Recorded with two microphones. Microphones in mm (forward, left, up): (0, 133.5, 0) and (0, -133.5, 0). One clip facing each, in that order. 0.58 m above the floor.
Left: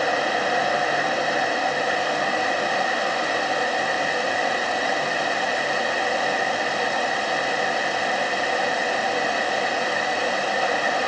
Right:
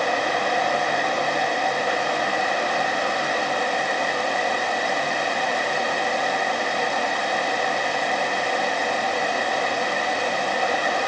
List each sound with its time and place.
Only background noise.